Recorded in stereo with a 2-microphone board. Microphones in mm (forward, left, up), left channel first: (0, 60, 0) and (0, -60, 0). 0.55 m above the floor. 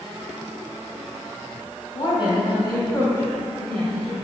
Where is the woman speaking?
45° left (ahead or behind), 3.5 m; by 4.2 s centre (ahead or behind), 2.5 m.